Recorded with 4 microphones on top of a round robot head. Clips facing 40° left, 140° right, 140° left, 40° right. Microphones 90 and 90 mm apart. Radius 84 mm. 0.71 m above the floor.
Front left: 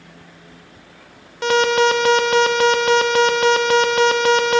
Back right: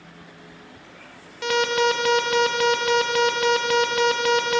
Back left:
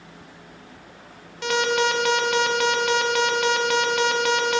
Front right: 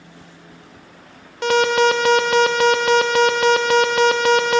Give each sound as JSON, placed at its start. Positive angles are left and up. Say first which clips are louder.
{"t": 1.4, "sound": "an alarm", "louder": "front left 5 dB, front right 6 dB", "azimuth_deg": -5, "distance_m": 0.6}